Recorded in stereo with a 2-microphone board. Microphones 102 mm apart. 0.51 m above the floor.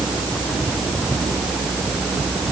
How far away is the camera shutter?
No camera shutter in this recording.